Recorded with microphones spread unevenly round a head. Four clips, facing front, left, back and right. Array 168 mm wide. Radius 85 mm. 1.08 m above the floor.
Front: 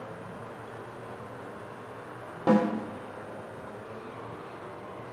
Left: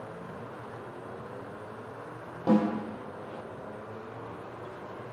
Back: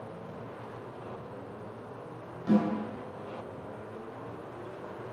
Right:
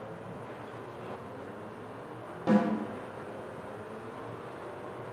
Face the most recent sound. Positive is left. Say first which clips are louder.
# left 1 dB, front 3 dB
turn(degrees=10)